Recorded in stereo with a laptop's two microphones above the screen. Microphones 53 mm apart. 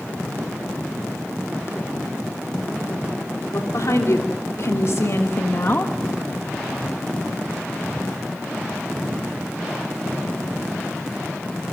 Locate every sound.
3.5 s a woman speaking: 70° left (ahead or behind), 3 m; by 6.0 s 35° left (ahead or behind), 1.2 m